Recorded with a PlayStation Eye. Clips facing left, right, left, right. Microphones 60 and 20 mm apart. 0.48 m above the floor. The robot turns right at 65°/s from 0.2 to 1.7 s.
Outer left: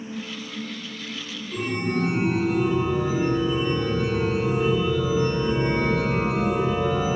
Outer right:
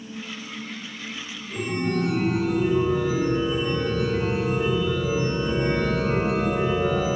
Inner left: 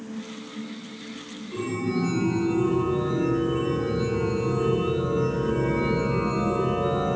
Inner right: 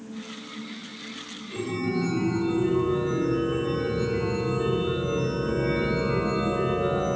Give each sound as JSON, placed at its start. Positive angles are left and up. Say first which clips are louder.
{"t": 1.5, "sound": "a chime", "louder": "even, inner left 1 dB", "side_deg": -60, "distance_m": 2.5}